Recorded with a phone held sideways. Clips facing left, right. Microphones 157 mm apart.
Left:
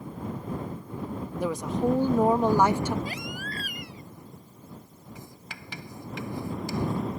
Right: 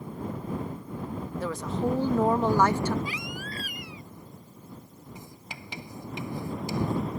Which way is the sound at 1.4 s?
15° left (ahead or behind).